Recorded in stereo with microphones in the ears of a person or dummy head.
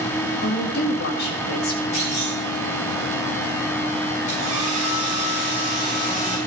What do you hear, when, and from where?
0.4 s a woman speaking: 50° left (ahead or behind), 1.8 m
1.9 s a clunk: 30° left (ahead or behind), 2.5 m
4.3 s a hair dryer: 35° left (ahead or behind), 5 m